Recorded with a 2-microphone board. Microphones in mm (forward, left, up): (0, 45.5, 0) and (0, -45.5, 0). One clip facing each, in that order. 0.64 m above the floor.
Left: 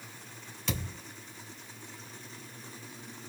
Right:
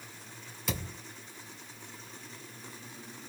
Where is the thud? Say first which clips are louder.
Left 1 dB; 5° right (ahead or behind), 3 m.